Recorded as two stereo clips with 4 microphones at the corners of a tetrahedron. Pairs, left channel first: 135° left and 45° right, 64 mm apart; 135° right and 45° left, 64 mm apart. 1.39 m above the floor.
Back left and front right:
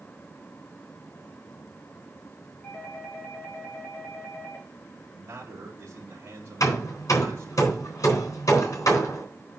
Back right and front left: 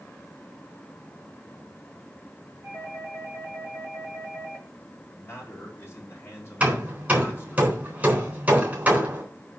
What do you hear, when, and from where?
2.6 s a doorbell: 75° left, 5 m
5.1 s a man speaking: 85° right, 3 m
6.6 s hammering: 105° left, 3.5 m